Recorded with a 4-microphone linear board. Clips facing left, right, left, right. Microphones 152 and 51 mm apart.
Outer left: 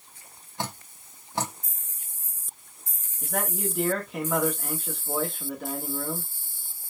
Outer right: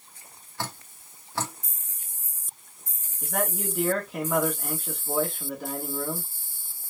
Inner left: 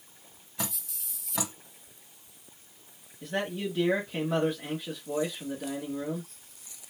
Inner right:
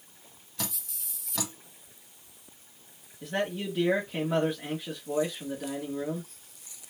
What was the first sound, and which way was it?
Dripping, 20° left (ahead or behind).